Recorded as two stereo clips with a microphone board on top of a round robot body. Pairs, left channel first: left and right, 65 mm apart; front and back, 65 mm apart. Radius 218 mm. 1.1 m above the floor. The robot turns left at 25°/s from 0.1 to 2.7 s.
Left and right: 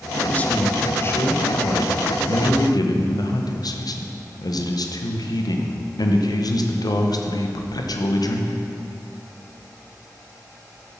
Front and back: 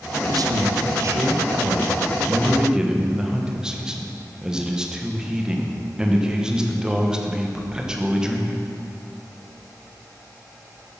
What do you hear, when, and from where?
0.3 s a man speaking: 160° left, 1.5 m; by 8.6 s 100° left, 1.5 m